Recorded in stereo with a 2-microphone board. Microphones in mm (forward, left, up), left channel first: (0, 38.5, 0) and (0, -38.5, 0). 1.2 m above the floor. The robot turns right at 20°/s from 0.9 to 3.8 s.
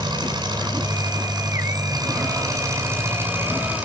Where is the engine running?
80° right, 6.5 m; by 3.9 s 20° right, 6.5 m.